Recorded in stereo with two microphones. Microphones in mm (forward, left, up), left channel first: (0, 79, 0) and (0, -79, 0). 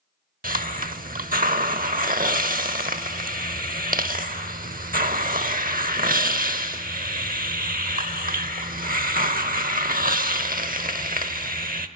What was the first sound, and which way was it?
A hiss, 60° right (ahead or behind).